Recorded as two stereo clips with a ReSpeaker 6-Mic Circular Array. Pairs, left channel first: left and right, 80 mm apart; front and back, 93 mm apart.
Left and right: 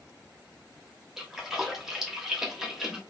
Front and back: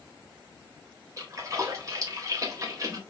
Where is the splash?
175° right, 0.9 m.